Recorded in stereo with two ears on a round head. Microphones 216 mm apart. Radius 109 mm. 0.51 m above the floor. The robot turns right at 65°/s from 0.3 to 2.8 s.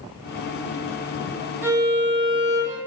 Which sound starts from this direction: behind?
A violin, at 1.6 s.